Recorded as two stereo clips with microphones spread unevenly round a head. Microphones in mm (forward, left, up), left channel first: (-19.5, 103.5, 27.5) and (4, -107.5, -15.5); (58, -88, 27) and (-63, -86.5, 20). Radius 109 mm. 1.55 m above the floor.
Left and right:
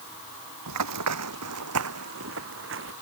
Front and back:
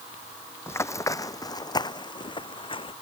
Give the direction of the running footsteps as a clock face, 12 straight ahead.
2 o'clock.